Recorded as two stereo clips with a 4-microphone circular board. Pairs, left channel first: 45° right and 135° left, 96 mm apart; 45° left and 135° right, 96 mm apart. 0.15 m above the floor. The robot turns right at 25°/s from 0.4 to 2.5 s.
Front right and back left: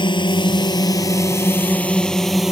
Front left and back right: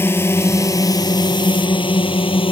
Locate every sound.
0.0 s a drone: 20° right; by 2.5 s 50° left